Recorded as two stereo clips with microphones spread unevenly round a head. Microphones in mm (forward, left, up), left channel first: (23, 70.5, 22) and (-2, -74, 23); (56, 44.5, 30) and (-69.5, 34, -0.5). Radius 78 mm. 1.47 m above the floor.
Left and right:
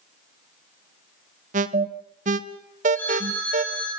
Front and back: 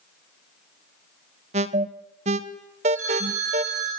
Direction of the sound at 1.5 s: 140° right.